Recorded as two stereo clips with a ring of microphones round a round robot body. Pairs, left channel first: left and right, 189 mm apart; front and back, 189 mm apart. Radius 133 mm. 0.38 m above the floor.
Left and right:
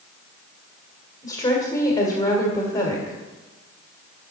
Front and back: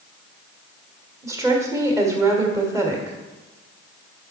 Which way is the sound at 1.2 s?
135° left.